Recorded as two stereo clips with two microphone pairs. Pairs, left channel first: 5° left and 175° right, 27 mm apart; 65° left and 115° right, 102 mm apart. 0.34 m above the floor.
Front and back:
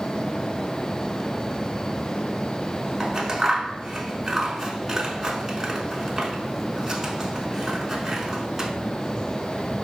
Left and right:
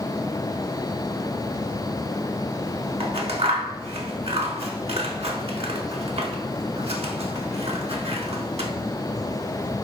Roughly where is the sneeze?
I don't hear a sneeze.